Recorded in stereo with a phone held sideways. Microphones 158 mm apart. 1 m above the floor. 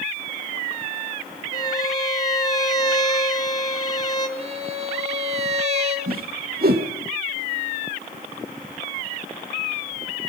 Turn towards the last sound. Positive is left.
turn(degrees=-75)  # may be behind; listen again after turning